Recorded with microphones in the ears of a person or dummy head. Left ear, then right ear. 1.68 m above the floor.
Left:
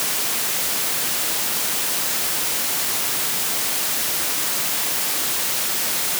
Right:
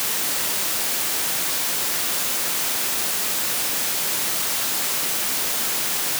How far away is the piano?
I don't hear a piano.